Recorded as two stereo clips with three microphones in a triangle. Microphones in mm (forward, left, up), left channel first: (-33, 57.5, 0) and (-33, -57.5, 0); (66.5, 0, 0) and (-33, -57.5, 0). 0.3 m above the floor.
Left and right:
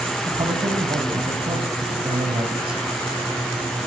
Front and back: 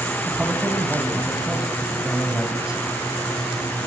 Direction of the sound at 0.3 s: 70° right.